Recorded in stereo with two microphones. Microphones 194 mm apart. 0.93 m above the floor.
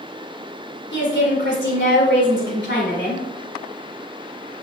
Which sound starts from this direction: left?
A woman speaking, at 0.9 s.